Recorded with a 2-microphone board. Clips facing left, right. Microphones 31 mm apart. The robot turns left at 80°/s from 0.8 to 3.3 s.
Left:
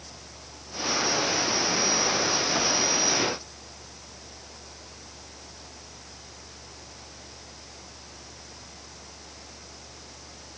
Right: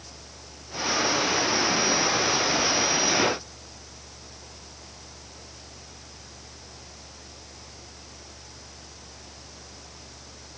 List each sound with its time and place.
Only background noise.